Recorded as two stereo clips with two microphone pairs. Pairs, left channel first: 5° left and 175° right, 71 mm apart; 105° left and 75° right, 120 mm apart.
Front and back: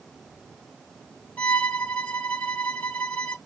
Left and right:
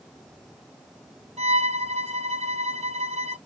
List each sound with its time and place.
1.4 s a violin: 60° right, 1.1 m